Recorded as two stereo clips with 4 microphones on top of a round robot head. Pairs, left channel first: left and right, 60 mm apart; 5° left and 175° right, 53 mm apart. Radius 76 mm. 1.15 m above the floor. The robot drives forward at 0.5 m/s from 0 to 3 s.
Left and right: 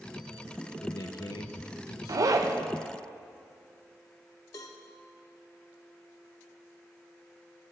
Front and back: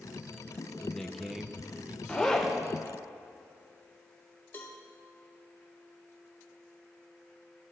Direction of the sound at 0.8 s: 80° left.